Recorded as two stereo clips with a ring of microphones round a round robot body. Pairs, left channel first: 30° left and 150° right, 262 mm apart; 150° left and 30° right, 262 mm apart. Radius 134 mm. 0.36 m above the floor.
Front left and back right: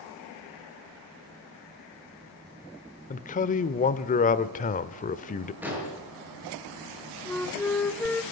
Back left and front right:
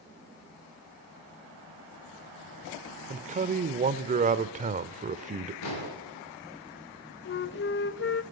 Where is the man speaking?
5° left, 1.1 m.